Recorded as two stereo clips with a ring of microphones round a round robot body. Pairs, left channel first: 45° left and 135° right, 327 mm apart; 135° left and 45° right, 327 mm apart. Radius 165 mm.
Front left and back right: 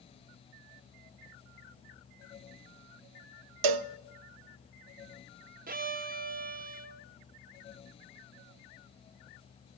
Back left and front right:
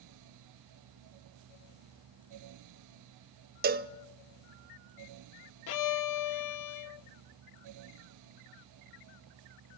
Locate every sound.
3.6 s a cowbell: 110° right, 0.7 m
5.7 s a violin: 160° left, 0.7 m